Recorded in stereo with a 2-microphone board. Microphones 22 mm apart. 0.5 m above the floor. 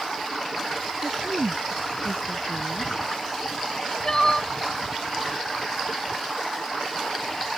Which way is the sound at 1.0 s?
65° right (ahead or behind).